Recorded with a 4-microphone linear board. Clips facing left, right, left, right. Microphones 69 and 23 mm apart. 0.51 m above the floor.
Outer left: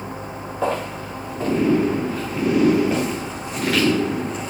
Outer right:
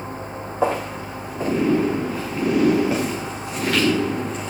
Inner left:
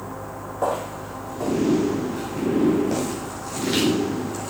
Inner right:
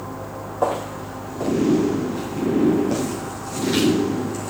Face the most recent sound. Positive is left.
turn(degrees=5)  # may be behind; listen again after turning